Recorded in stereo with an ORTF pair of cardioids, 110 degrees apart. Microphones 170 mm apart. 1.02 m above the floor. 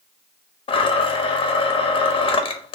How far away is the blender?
About 0.6 m.